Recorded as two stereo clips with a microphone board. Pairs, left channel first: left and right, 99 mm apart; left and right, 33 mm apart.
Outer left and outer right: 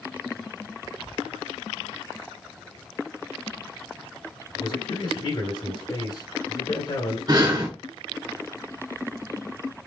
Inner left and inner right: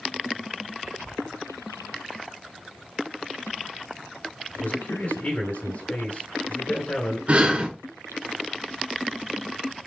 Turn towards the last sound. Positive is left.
turn(degrees=-45)  # may be behind; listen again after turning